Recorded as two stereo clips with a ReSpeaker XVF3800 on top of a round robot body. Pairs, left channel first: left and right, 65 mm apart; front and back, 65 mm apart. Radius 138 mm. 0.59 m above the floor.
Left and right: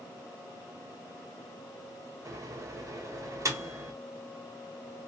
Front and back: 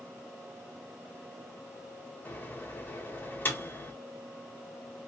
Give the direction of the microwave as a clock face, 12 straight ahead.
2 o'clock.